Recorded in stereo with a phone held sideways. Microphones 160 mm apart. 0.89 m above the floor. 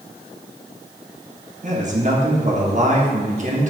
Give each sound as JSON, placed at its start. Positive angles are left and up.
{"t": 1.6, "sound": "a man speaking", "side_deg": -45, "distance_m": 1.2}